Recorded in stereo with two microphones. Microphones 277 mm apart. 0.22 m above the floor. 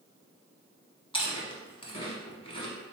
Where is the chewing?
20° left (ahead or behind), 0.8 m.